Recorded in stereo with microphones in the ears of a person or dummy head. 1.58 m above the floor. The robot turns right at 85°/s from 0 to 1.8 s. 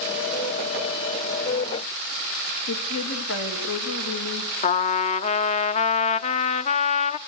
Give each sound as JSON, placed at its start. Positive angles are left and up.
{"t": 2.7, "sound": "a woman speaking", "side_deg": 80, "distance_m": 2.5}
{"t": 4.6, "sound": "a trumpet", "side_deg": 40, "distance_m": 0.7}